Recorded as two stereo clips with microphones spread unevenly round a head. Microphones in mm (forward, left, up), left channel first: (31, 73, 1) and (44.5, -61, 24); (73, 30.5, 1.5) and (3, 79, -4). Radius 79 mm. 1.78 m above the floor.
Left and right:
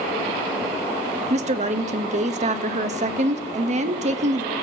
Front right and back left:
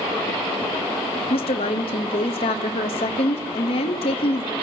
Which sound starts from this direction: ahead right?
A woman speaking, at 1.3 s.